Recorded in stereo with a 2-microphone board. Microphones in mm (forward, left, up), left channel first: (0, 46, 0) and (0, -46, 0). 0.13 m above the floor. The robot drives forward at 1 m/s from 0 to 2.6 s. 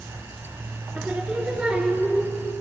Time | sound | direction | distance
0.9 | singing | 10° right (ahead or behind) | 1.7 m